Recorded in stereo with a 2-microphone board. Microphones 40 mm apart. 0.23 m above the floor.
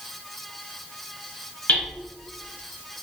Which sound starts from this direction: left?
Hammering, at 1.7 s.